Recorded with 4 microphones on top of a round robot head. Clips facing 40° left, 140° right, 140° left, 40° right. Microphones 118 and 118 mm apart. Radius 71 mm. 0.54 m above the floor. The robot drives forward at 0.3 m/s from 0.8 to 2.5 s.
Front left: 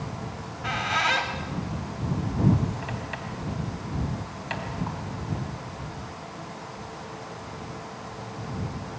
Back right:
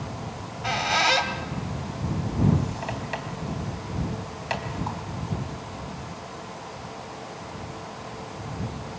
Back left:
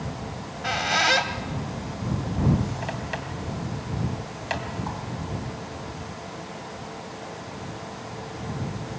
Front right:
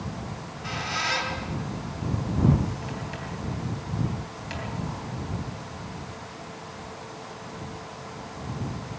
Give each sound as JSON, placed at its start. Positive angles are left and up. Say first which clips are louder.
{"t": 0.3, "sound": "a squeak", "louder": "back right 4 dB, back left 5 dB", "azimuth_deg": 165, "distance_m": 2.5}